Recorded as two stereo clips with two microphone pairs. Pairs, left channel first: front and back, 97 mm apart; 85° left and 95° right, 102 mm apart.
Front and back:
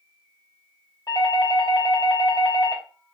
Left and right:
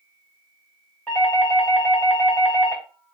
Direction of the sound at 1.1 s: 25° left.